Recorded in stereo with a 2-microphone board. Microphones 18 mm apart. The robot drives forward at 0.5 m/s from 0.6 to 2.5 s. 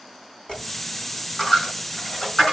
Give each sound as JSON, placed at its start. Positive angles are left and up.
{"t": 0.5, "sound": "a dropped coin", "side_deg": 45, "distance_m": 6.0}